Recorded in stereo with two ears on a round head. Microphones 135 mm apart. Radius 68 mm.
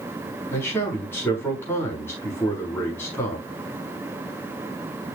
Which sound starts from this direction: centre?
A man speaking, at 0.5 s.